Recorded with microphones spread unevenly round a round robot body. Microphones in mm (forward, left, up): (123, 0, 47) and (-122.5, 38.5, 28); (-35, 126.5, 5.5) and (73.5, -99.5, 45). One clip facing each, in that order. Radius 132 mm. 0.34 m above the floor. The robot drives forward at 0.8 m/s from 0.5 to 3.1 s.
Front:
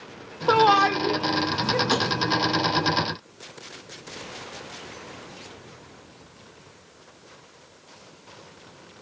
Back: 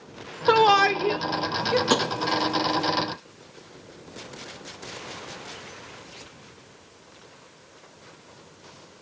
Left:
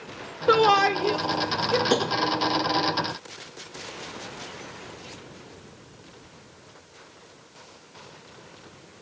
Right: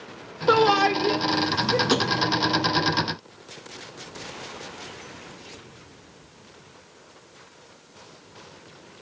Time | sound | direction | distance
0.5 | a shout | 160° right | 1.2 m
1.9 | tapping | 140° right | 2 m